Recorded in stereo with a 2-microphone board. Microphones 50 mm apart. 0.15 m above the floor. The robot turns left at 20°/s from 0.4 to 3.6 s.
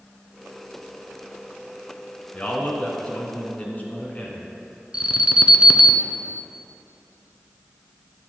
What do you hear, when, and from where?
2.3 s a man speaking: 30° left (ahead or behind), 1.6 m; by 4.5 s 35° left (ahead or behind), 1.6 m
4.9 s an alarm: 20° right (ahead or behind), 1.0 m